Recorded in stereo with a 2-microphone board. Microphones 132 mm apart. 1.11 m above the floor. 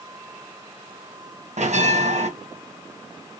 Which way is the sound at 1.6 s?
60° right (ahead or behind).